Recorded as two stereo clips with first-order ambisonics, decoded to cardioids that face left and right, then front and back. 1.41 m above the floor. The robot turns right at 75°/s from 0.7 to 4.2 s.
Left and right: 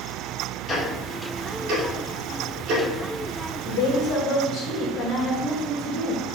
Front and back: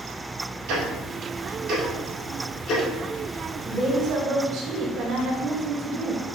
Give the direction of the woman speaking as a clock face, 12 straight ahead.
9 o'clock.